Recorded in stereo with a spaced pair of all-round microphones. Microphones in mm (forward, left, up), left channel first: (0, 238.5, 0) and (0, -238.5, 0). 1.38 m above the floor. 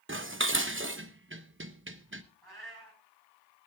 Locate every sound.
0.1 s dishes clattering: 25° right (ahead or behind), 1.0 m
2.4 s a cat meowing: 55° right (ahead or behind), 5 m